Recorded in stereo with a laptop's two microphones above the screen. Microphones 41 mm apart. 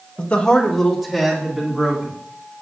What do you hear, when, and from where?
0.2 s a man speaking: 45° left (ahead or behind), 0.9 m; by 2.2 s 15° right (ahead or behind), 3 m